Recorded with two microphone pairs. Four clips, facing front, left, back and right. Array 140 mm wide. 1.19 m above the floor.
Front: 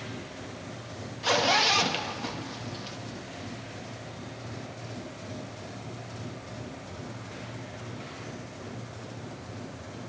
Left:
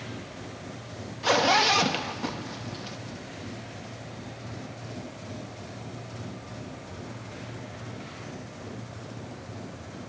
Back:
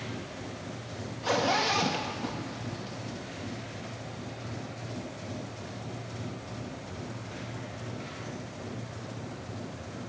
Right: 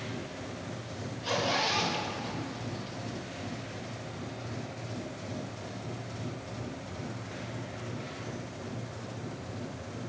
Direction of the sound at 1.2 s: 75° left.